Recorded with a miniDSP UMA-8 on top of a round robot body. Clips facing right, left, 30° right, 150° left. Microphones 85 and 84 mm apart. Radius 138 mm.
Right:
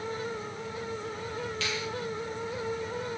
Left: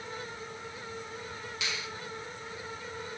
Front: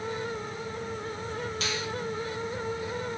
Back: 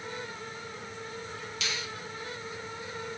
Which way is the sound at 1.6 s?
15° left.